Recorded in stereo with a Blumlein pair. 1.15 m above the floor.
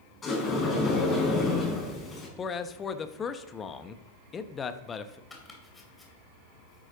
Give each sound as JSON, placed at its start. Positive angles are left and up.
{"t": 0.2, "sound": "a sliding door", "azimuth_deg": 20, "distance_m": 5.5}
{"t": 2.4, "sound": "a man speaking", "azimuth_deg": 20, "distance_m": 1.0}
{"t": 5.3, "sound": "chopping", "azimuth_deg": 10, "distance_m": 3.0}